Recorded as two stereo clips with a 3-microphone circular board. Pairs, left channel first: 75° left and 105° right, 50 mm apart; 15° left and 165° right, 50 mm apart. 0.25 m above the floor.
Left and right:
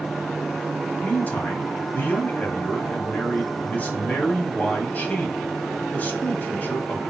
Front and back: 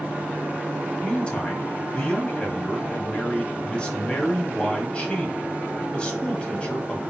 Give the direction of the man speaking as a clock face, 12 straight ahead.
10 o'clock.